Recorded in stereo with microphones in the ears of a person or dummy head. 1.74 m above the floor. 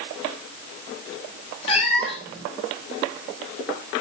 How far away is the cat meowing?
About 4 m.